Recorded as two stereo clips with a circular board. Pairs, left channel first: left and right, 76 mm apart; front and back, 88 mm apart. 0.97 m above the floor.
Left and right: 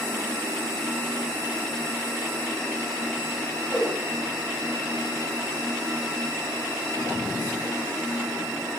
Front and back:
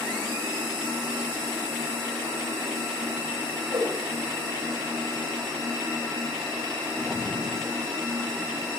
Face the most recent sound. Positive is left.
turn(degrees=165)